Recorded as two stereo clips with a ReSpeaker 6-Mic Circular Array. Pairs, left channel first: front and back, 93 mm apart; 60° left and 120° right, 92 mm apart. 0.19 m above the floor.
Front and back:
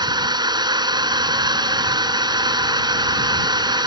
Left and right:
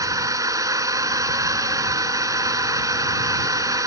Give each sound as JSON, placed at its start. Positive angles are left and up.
{"t": 0.0, "sound": "a drone", "azimuth_deg": -160}